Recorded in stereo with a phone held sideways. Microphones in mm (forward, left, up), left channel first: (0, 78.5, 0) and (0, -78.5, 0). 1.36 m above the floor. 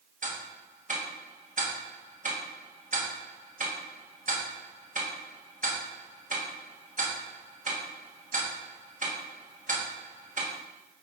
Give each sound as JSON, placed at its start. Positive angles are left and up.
{"t": 0.2, "sound": "ticking", "side_deg": -55, "distance_m": 1.8}